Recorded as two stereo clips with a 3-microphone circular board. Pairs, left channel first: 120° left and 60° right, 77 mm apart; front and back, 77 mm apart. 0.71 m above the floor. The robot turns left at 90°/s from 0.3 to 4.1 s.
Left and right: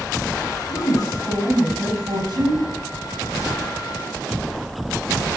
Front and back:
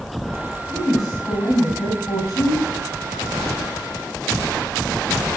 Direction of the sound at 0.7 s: 120° left.